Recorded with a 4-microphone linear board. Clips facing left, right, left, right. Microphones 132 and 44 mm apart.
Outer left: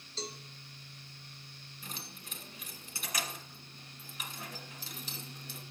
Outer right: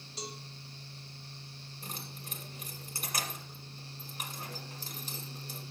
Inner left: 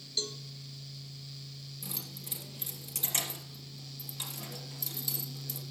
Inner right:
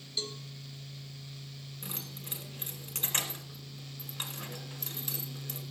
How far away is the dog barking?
No dog barking in this recording.